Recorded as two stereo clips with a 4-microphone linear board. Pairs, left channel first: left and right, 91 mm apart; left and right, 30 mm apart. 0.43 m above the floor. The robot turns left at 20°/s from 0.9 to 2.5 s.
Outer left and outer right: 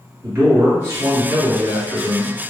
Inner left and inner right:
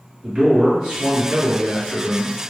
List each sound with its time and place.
0.2 s a man speaking: 135° right, 1.8 m; by 2.4 s 165° right, 1.8 m